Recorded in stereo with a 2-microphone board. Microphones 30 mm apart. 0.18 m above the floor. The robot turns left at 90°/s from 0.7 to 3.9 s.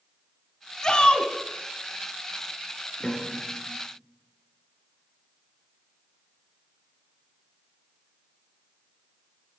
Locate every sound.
0.8 s a shout: 130° left, 1.8 m; by 1.3 s 90° left, 1.8 m
3.0 s a piano: 10° left (ahead or behind), 2.5 m; by 3.8 s 60° left (ahead or behind), 2.5 m